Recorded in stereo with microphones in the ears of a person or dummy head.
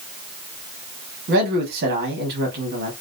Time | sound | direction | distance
1.3 | a man speaking | 55° right (ahead or behind) | 0.8 m